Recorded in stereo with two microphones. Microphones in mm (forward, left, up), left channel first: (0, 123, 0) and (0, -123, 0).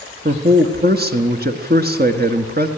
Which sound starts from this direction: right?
A man speaking, at 0.2 s.